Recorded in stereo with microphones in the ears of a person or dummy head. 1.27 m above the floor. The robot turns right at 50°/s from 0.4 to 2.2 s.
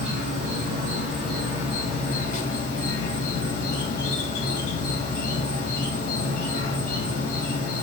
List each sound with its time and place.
0.0 s an insect: 70° right, 1.4 m; by 7.8 s 20° left, 1.4 m